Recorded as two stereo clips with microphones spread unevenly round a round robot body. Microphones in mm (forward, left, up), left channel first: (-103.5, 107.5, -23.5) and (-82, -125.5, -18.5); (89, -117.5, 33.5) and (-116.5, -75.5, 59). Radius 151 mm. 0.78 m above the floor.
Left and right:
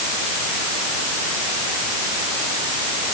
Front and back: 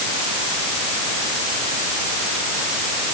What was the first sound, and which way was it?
Only background noise.